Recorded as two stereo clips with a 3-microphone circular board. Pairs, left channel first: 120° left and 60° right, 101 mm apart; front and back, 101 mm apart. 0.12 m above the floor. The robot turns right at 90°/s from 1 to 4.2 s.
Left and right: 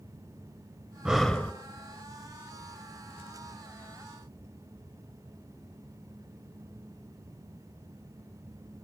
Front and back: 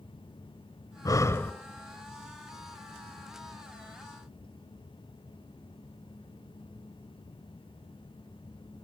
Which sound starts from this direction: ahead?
Breathing, at 1.1 s.